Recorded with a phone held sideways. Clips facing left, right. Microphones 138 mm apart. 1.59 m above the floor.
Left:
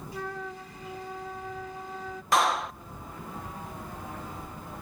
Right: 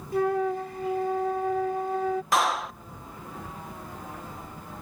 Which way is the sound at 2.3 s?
Centre (ahead or behind).